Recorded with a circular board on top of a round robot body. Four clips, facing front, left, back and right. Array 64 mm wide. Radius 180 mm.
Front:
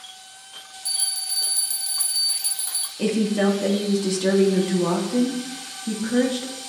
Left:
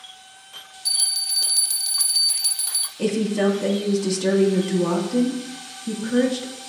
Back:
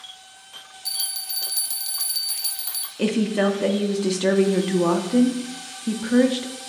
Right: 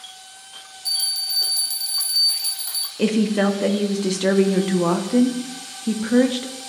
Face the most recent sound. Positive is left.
turn(degrees=-115)